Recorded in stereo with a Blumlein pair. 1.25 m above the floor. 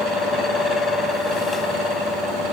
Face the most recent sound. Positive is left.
turn(degrees=10)